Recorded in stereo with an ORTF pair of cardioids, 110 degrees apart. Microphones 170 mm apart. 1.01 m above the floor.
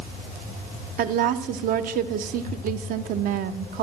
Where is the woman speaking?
60° right, 0.8 m.